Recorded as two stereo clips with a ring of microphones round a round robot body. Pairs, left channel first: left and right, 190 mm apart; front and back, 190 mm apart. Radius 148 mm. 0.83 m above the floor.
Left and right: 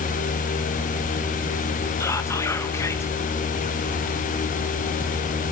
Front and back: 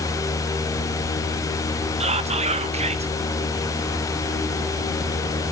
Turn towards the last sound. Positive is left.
turn(degrees=155)